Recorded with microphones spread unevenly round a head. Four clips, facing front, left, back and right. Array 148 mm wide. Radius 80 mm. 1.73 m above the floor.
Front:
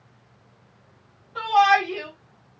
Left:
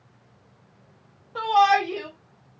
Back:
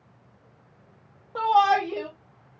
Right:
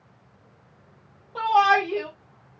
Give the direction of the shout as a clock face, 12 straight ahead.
6 o'clock.